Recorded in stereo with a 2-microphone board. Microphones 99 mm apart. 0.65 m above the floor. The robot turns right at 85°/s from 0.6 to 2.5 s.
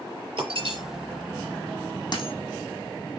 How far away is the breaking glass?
About 6 m.